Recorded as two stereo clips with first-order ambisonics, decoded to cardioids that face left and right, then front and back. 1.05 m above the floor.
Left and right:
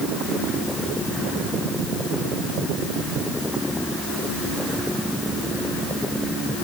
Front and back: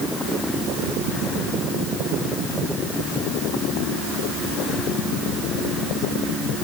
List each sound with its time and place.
Only background noise.